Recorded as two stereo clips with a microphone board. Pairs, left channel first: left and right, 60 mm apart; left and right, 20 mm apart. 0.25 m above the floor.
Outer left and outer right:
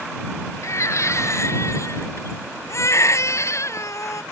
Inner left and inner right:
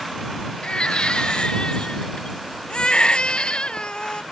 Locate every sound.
0.6 s a baby crying: 50° left (ahead or behind)